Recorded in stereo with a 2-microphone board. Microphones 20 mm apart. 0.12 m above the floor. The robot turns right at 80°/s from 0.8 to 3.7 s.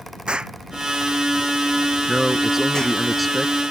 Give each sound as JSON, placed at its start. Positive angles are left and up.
{"t": 0.3, "sound": "an explosion", "side_deg": -55}
{"t": 2.1, "sound": "a man speaking", "side_deg": -30}